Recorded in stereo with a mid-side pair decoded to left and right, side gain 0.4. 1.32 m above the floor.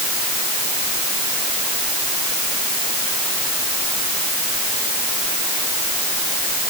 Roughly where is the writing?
No writing in this recording.